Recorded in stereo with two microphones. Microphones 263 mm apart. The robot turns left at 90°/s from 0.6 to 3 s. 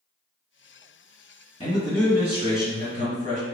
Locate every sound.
1.6 s a man speaking: 45° left, 1.9 m; by 3.4 s 80° right, 1.9 m